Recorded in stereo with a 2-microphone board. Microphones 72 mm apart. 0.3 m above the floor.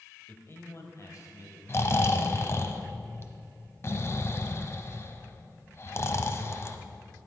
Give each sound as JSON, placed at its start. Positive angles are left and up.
{"t": 0.3, "sound": "a man speaking", "side_deg": 25, "distance_m": 1.2}
{"t": 1.7, "sound": "snoring", "side_deg": 40, "distance_m": 0.8}